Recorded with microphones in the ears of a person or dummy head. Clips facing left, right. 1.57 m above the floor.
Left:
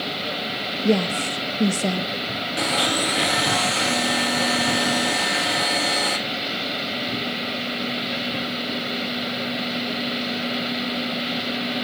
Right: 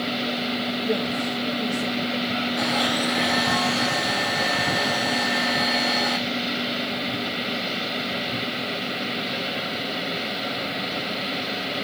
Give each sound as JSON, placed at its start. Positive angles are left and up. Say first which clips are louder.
{"t": 0.8, "sound": "a woman speaking", "louder": "left 7 dB", "side_deg": 75, "distance_m": 1.0}
{"t": 2.6, "sound": "a blender", "louder": "left 3 dB", "side_deg": 40, "distance_m": 3.5}